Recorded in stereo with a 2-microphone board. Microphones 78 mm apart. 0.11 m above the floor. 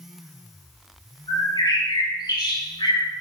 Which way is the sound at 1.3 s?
65° left (ahead or behind).